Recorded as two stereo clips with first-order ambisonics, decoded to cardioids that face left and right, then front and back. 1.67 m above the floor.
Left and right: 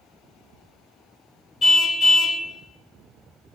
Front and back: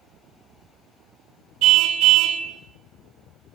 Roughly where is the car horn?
Behind left.